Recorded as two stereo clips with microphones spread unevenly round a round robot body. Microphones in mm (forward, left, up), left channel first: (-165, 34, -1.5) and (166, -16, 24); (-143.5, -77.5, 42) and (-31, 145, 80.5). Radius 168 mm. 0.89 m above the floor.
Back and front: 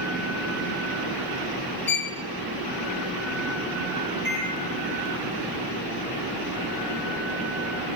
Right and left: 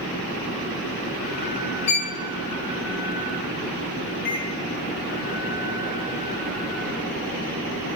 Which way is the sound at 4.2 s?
70° right.